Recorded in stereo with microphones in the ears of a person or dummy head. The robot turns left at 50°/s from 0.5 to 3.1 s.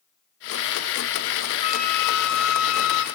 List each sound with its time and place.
1.6 s a flute: 150° left, 4 m; by 3.0 s 75° left, 4 m